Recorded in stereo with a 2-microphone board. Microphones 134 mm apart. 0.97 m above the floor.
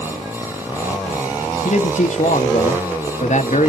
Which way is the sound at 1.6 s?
65° left (ahead or behind).